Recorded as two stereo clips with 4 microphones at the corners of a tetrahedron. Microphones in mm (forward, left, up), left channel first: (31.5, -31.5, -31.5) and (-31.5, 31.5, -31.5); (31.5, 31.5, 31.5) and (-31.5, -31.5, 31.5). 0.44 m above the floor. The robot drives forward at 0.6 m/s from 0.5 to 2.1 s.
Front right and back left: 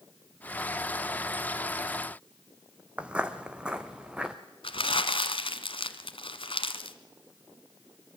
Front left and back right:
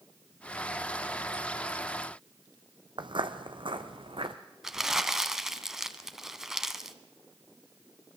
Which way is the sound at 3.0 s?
150° right.